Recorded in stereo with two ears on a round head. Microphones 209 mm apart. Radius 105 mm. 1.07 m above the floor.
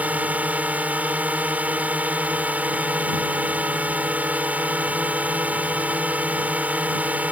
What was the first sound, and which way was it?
A drone, 5° right (ahead or behind).